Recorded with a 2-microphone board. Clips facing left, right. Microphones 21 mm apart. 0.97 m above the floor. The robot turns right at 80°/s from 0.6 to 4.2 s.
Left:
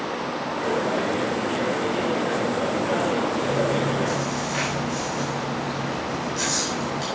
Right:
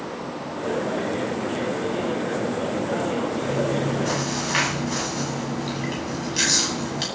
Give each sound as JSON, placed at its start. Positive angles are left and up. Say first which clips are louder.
{"t": 3.4, "sound": "chewing", "louder": "left 1 dB", "azimuth_deg": 175, "distance_m": 9.5}